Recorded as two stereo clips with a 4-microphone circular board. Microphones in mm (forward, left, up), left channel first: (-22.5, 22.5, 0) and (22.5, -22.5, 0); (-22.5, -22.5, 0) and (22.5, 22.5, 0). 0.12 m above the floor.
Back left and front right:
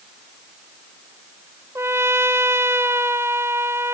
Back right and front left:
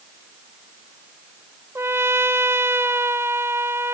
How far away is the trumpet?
About 0.8 m.